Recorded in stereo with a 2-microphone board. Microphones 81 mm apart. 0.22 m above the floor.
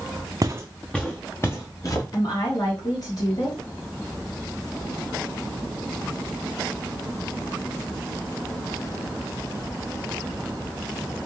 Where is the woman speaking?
50° left (ahead or behind), 3 m.